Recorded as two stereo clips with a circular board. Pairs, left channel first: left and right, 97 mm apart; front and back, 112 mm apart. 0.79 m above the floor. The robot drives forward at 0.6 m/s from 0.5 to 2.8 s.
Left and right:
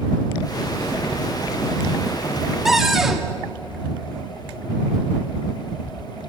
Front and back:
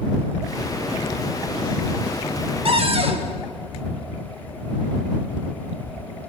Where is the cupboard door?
175° right, 1.9 m.